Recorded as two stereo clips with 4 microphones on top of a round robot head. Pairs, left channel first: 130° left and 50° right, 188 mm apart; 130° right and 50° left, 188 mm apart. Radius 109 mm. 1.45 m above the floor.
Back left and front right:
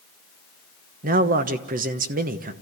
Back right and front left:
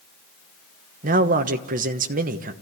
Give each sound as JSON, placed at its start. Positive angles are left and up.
{"t": 1.0, "sound": "a man speaking", "azimuth_deg": 0, "distance_m": 1.2}